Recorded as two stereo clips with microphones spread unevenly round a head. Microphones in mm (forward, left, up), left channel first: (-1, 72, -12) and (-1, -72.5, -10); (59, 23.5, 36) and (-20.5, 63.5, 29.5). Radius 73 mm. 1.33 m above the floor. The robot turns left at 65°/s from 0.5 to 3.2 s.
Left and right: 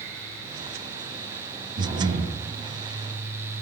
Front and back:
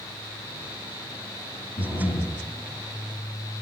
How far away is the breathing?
About 1.9 m.